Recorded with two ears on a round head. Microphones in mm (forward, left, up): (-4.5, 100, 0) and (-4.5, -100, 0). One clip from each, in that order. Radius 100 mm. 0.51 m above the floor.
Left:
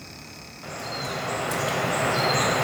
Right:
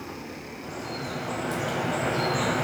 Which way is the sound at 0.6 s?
30° left (ahead or behind).